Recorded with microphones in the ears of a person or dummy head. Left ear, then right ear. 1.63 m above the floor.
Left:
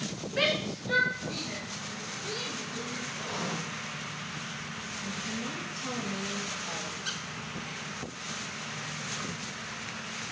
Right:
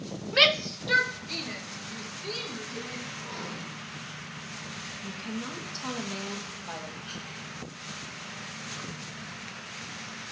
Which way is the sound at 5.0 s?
55° right (ahead or behind).